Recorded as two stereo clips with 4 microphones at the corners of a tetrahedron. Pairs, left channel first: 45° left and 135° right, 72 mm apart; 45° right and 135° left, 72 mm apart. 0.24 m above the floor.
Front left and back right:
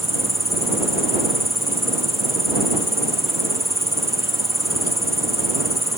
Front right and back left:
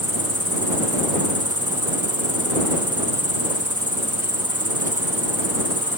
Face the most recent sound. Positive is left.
turn(degrees=130)